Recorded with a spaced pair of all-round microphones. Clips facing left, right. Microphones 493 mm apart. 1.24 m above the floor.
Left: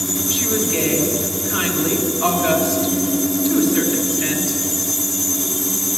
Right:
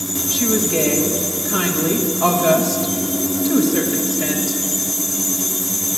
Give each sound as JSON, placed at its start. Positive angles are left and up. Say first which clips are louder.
{"t": 0.3, "sound": "a woman speaking", "louder": "right 4 dB", "side_deg": -65, "distance_m": 1.4}